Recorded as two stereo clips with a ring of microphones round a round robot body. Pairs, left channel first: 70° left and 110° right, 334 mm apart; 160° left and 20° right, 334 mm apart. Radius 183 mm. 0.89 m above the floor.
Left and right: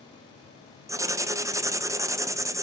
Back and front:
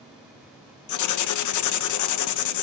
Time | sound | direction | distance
0.9 | writing | 170° left | 0.8 m